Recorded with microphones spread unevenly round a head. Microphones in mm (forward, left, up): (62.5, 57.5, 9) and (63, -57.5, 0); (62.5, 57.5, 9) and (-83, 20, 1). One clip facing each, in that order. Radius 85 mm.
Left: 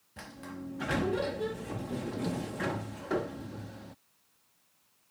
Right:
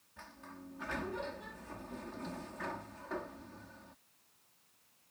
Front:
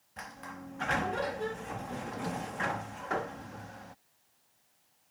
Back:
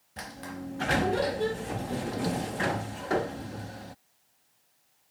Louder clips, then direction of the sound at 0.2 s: Left 9 dB, back 6 dB; 140° left.